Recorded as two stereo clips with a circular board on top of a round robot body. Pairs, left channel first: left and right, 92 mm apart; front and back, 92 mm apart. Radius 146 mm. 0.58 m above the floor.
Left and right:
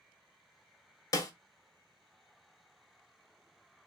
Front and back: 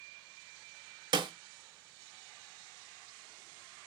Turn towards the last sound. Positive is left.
turn(degrees=140)